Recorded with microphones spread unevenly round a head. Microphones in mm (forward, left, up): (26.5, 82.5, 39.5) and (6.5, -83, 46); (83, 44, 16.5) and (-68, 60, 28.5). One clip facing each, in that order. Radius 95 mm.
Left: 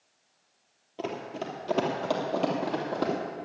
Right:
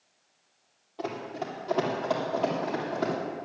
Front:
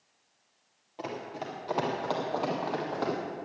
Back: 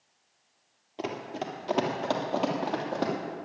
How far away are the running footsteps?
About 1.9 m.